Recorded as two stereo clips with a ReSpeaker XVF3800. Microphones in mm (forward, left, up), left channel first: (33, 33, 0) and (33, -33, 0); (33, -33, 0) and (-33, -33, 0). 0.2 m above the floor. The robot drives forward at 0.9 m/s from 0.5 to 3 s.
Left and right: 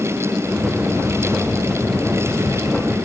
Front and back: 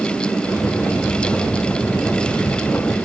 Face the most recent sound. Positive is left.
No sound to turn to.